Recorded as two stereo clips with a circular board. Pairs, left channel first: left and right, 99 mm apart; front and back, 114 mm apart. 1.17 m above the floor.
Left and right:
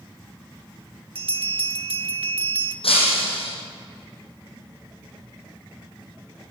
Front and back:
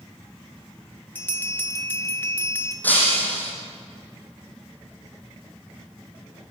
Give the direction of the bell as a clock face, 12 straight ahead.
2 o'clock.